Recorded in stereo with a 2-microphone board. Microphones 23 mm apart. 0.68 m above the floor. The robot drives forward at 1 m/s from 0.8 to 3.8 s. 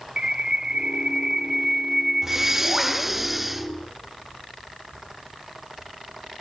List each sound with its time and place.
0.2 s a bird: 35° right (ahead or behind), 0.7 m; by 3.2 s 10° right (ahead or behind), 2.5 m
2.2 s breathing: 20° right (ahead or behind), 0.7 m; by 3.7 s 5° right (ahead or behind), 1.7 m